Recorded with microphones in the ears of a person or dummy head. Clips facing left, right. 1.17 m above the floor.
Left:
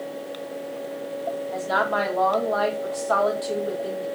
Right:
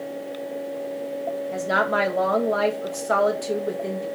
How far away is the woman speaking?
About 0.6 m.